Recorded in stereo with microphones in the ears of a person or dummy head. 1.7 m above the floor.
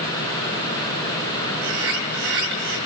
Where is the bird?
80° right, 5.5 m.